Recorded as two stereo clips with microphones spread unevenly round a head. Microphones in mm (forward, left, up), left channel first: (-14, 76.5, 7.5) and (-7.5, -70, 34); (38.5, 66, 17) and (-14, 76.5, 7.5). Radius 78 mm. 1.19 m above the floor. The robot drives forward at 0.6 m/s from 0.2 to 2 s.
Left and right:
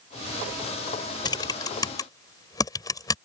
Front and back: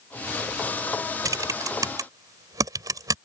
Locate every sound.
1.2 s typing on a keyboard: 160° left; by 3.1 s 165° left